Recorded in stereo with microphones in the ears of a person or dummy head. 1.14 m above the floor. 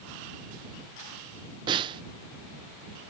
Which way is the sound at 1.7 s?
25° right (ahead or behind).